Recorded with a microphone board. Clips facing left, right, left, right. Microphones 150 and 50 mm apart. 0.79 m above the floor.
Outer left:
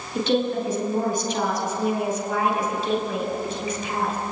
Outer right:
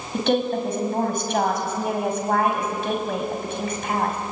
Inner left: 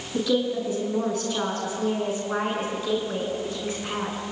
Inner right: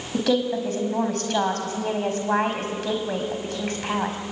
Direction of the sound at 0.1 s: 60° right (ahead or behind).